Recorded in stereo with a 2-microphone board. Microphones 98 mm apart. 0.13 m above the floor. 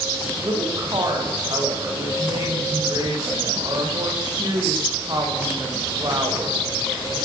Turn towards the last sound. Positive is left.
turn(degrees=-45)  # may be behind; listen again after turning